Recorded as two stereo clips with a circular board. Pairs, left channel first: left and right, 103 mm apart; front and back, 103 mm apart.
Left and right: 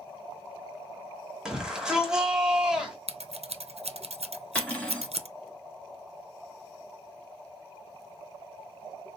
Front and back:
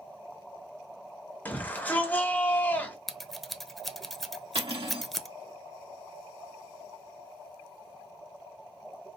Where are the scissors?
90° right, 0.6 m.